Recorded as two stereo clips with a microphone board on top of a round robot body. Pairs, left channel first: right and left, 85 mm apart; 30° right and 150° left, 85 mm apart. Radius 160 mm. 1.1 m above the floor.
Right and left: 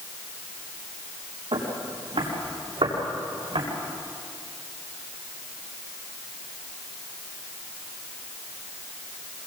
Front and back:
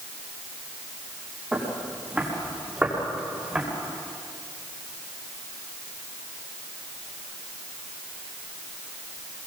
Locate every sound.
1.5 s footsteps: 75° left, 6 m